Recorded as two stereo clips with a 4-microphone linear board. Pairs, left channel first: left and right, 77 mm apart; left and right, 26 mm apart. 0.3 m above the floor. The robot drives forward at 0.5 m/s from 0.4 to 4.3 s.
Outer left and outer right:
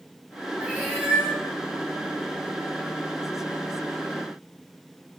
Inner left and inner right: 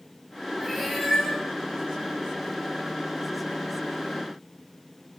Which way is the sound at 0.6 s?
15° right (ahead or behind).